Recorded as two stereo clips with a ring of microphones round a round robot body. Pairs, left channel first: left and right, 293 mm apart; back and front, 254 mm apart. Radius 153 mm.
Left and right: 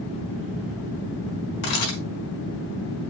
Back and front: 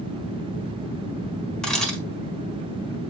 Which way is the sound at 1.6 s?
95° left.